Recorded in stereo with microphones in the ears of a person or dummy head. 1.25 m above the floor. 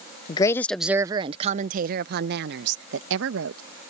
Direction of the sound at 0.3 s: 25° left (ahead or behind).